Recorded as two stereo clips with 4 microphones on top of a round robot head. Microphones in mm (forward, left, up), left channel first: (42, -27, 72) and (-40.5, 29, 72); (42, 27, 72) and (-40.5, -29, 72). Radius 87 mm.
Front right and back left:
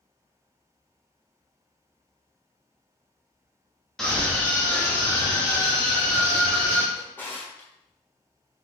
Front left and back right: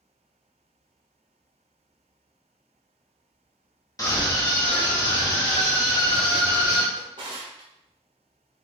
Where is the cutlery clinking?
No cutlery clinking in this recording.